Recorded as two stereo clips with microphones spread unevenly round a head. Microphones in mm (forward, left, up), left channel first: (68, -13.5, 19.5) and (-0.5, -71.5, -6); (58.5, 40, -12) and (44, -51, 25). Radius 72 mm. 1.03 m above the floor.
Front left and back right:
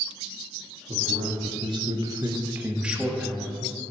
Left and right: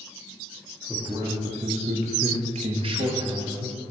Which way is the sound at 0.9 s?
175° right.